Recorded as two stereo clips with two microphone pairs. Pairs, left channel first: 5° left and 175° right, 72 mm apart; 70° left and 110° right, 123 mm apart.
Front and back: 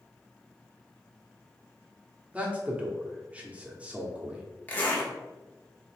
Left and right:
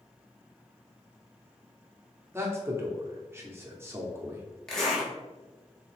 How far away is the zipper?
About 1.0 m.